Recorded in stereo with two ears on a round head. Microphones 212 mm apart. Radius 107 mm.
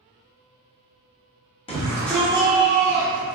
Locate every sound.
1.7 s a shout: 20° left (ahead or behind), 0.7 m; by 3.4 s 45° right (ahead or behind), 1.0 m